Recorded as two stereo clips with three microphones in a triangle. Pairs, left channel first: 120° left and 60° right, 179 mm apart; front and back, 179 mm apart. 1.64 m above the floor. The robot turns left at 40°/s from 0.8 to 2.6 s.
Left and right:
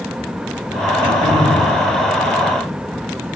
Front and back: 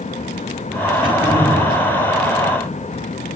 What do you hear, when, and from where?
1.0 s throat clearing: 95° right, 4 m; by 1.7 s 125° right, 4 m